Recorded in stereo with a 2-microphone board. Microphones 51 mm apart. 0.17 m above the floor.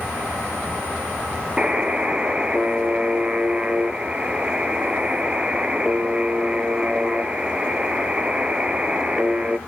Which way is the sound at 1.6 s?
25° right (ahead or behind).